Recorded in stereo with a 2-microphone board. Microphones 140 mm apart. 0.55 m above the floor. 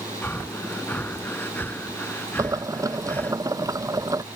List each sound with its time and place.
0.2 s breathing: 15° left (ahead or behind)
2.4 s boiling: 25° right (ahead or behind)